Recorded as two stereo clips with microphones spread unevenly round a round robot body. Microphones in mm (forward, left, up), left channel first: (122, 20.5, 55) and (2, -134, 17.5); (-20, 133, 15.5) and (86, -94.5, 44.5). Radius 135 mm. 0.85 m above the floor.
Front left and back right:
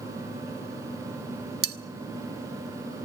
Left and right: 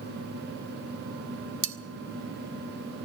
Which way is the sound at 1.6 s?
95° right.